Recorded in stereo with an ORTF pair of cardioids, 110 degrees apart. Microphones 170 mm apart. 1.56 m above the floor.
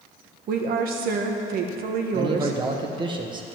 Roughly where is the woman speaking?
Ahead right.